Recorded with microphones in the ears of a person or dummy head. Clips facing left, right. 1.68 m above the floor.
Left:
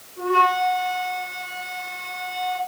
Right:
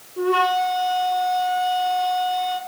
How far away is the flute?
About 4.5 m.